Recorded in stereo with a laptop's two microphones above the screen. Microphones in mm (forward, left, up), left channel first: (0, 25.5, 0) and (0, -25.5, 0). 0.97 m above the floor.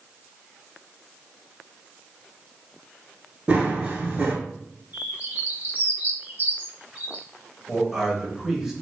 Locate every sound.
3.5 s running footsteps: 25° right (ahead or behind), 1.0 m
4.9 s a bird: 35° right (ahead or behind), 1.6 m
7.7 s a man speaking: 5° right (ahead or behind), 0.7 m